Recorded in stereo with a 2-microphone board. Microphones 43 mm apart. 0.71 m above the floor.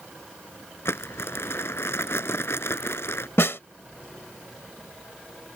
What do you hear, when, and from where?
0.8 s crumpling: 90° left
3.4 s a snare drum: 80° left